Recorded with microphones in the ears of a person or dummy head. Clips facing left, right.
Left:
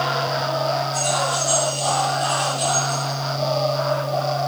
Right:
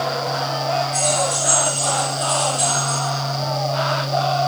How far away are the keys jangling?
About 4.5 m.